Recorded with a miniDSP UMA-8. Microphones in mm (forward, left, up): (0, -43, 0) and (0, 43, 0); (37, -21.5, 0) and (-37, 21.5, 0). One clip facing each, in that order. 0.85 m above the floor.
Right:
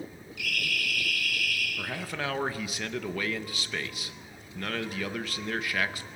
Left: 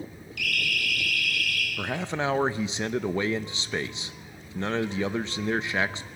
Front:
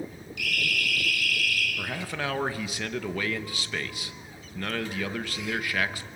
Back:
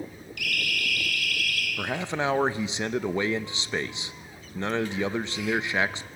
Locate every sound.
0.4 s a siren: 115° left, 9 m; by 1.7 s 110° left, 7.5 m
1.8 s a man speaking: 120° left, 0.9 m